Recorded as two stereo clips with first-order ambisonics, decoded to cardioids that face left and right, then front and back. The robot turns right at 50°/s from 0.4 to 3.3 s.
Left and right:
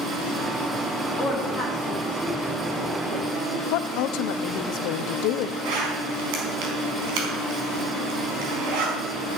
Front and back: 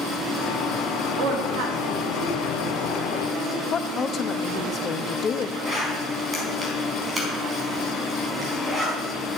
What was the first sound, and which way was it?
A woman speaking, 145° left.